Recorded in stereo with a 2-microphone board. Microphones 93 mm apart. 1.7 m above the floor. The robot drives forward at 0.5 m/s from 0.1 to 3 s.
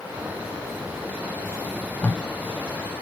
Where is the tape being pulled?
15° left (ahead or behind), 0.7 m.